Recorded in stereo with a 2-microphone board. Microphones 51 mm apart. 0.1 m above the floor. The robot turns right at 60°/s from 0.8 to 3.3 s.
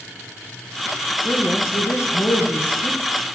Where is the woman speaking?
30° left, 1.9 m; by 3.0 s 135° left, 1.9 m.